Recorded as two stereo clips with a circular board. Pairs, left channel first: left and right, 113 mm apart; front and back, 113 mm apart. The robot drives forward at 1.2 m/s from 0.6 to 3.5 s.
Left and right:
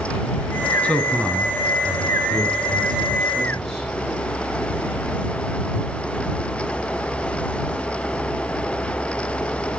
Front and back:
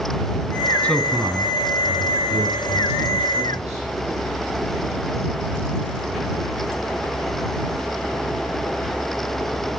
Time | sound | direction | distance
0.8 | a man speaking | 45° left | 1.0 m